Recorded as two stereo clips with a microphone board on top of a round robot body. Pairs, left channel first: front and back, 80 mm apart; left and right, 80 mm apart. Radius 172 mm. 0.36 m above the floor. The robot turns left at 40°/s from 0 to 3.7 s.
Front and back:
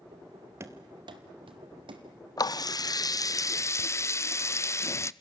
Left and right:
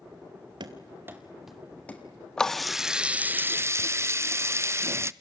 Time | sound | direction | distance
0.6 | running footsteps | 125° right | 0.7 m
2.4 | a running tap | 10° left | 0.7 m